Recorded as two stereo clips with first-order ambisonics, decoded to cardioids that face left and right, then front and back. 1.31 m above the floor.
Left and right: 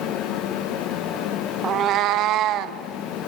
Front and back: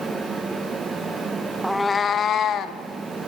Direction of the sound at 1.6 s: 100° right.